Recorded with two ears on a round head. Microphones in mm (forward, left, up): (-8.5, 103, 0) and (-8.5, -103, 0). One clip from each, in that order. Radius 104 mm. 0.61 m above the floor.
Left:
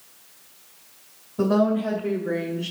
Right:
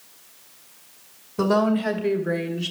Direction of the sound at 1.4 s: 65° right (ahead or behind).